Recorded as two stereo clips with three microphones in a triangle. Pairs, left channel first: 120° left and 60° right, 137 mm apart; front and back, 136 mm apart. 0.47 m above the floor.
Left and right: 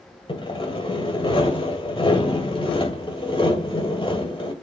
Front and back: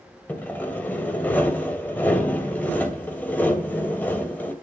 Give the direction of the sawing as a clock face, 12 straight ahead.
9 o'clock.